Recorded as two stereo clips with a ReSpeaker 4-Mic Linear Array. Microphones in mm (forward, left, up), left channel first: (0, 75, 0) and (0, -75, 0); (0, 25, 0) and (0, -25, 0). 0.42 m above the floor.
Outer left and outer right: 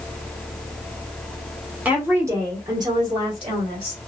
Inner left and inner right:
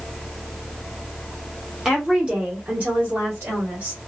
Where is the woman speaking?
10° right (ahead or behind), 1.1 m; by 4.0 s 40° right (ahead or behind), 1.7 m.